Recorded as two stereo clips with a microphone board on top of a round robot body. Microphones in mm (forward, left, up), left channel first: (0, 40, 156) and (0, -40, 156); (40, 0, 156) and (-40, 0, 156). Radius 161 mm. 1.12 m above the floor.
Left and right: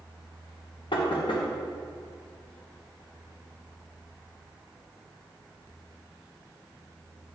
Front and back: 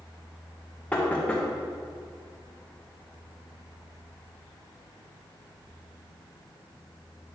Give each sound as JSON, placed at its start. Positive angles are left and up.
{"t": 0.9, "sound": "knocking", "azimuth_deg": 75, "distance_m": 1.5}